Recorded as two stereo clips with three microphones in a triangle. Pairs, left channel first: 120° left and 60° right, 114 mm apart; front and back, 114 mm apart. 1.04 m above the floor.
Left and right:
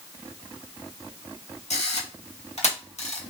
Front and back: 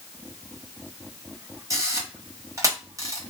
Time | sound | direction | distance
1.7 | a camera shutter | 120° left | 0.9 m